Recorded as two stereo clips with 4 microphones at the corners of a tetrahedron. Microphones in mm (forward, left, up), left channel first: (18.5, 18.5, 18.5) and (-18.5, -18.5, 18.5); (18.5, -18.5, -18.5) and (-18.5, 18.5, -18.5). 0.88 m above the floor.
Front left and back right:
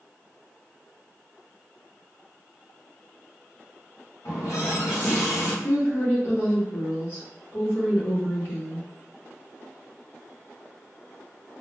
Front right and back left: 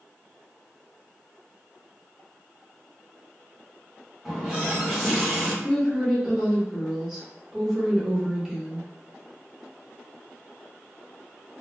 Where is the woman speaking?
55° left, 1.1 m.